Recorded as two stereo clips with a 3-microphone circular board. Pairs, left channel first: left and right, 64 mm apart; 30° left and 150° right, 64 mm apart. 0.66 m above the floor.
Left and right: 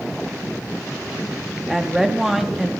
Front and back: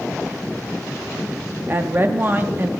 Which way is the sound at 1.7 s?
170° right.